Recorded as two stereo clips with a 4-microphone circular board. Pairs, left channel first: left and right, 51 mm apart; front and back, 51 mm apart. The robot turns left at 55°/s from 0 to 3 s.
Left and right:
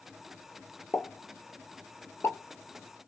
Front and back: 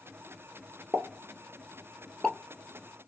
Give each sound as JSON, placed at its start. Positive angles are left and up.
{"t": 0.9, "sound": "a pop", "azimuth_deg": 140, "distance_m": 0.9}